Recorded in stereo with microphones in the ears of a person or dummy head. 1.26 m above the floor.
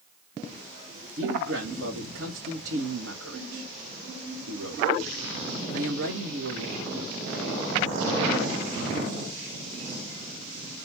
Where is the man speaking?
70° right (ahead or behind), 1.7 m.